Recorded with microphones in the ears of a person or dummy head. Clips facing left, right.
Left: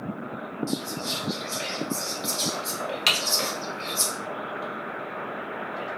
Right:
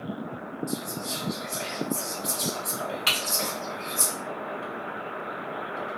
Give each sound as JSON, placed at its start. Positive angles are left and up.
{"t": 0.7, "sound": "whispering", "side_deg": 55, "distance_m": 1.3}
{"t": 3.1, "sound": "typing on a keyboard", "side_deg": 60, "distance_m": 1.5}